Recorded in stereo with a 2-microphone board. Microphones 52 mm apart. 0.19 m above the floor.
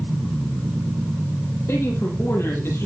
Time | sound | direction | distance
1.7 | a man speaking | 55° left (ahead or behind) | 8 m